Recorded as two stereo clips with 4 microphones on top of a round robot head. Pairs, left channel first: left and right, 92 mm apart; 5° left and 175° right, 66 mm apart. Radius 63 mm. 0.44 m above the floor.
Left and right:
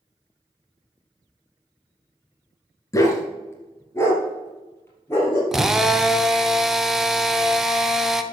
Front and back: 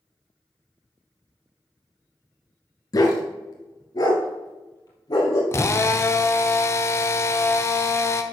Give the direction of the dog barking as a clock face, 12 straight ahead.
11 o'clock.